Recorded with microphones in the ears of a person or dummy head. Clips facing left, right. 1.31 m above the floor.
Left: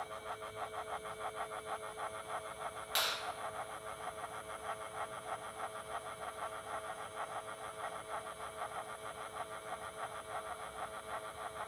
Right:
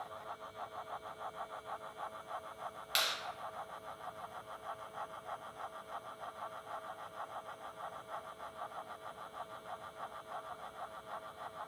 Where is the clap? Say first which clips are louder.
Even; 30° right (ahead or behind), 0.8 m.